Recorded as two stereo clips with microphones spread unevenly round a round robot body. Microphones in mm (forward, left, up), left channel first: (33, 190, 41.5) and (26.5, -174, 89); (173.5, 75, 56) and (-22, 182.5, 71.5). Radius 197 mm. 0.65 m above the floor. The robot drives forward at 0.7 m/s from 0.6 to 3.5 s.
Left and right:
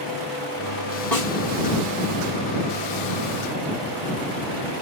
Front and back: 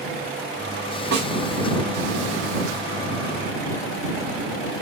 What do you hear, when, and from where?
1.1 s a snare drum: 175° left, 6.5 m